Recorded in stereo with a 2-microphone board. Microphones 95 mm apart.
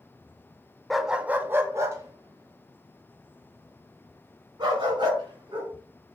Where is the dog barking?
Centre (ahead or behind), 0.5 m; by 5.7 s 50° right (ahead or behind), 3 m.